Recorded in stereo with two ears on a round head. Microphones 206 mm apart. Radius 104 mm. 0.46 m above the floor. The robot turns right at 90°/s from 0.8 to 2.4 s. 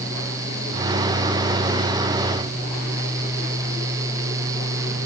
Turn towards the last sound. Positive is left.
No sound to turn to.